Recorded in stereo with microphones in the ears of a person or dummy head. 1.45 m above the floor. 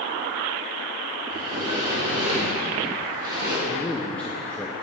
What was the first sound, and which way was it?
A sliding door, 20° right (ahead or behind).